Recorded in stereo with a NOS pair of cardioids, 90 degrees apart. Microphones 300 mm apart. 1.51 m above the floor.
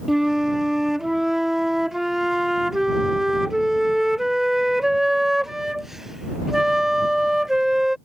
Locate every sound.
0.1 s a flute: straight ahead